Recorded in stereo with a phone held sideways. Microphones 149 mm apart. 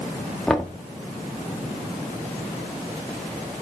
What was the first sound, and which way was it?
Knocking, 5° left (ahead or behind).